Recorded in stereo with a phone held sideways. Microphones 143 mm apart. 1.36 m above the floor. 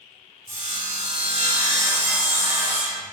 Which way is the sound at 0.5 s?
45° right (ahead or behind).